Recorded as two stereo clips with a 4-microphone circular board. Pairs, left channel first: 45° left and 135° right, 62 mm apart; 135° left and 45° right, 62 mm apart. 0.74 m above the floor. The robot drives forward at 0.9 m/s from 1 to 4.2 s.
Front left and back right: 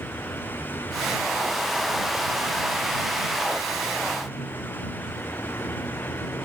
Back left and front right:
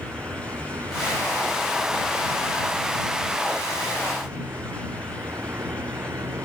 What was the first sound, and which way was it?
A vehicle, 5° right.